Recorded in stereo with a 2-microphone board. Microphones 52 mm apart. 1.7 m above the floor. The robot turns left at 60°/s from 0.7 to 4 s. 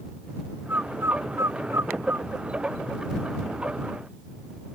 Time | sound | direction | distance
0.7 | a bird | 40° right (ahead or behind) | ?